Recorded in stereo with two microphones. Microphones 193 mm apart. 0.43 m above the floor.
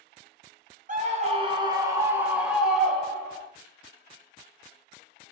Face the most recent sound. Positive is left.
turn(degrees=10)  # may be behind; listen again after turning